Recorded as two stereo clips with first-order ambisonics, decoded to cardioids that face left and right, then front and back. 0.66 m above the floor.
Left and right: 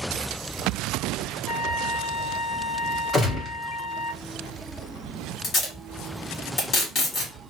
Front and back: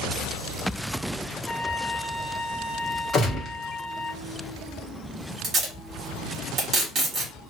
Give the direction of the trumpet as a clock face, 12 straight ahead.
11 o'clock.